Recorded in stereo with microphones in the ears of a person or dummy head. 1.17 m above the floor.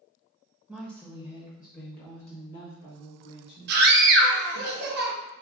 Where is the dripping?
I don't hear dripping.